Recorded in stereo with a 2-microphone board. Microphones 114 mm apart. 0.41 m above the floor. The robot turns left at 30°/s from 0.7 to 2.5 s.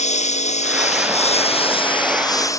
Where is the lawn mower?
85° left; by 2.6 s 30° left.